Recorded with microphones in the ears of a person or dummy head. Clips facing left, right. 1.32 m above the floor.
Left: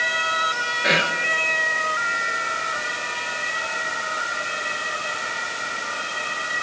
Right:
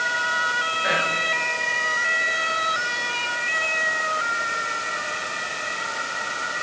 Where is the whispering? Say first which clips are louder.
Left 3 dB; 35° left (ahead or behind), 1.6 m.